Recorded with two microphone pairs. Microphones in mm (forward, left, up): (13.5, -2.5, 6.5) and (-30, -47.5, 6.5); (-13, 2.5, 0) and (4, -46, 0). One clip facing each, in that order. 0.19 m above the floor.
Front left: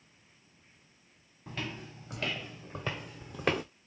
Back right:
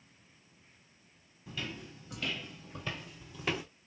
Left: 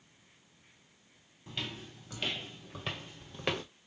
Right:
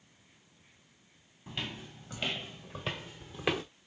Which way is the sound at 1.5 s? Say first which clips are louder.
Front left 2 dB, right 1 dB; 10° left.